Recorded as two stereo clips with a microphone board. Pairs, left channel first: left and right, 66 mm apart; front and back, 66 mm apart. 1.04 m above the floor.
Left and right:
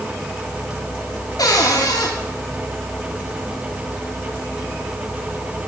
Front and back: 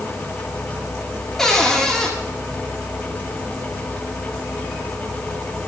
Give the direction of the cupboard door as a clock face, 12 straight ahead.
9 o'clock.